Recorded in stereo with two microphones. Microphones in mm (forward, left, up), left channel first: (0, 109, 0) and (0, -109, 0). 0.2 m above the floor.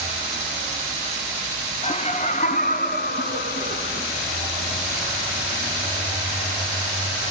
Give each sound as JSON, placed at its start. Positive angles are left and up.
{"t": 1.8, "sound": "laughter", "side_deg": 30, "distance_m": 1.4}